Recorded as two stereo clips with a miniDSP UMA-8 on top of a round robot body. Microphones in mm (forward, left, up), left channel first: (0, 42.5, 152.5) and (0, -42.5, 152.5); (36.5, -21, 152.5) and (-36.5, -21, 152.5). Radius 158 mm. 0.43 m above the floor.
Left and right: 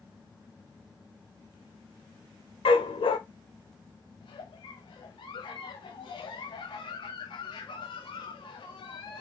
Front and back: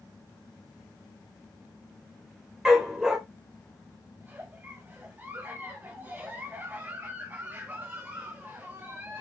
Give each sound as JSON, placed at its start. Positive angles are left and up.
{"t": 2.6, "sound": "a dog barking", "azimuth_deg": 100, "distance_m": 1.0}
{"t": 4.2, "sound": "a giggle", "azimuth_deg": 115, "distance_m": 0.9}